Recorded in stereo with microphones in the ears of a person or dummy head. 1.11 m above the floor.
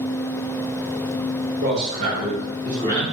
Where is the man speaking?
55° right (ahead or behind), 1.1 m; by 3.0 s 25° left (ahead or behind), 0.8 m.